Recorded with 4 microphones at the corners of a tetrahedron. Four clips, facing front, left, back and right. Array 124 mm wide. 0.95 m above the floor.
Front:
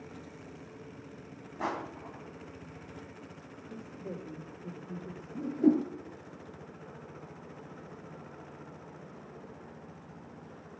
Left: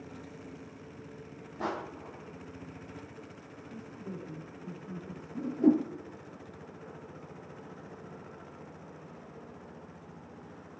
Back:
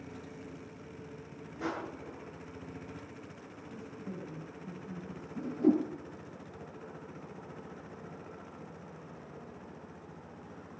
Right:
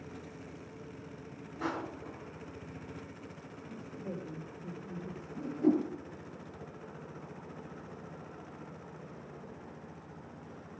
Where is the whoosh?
45° left, 3 m.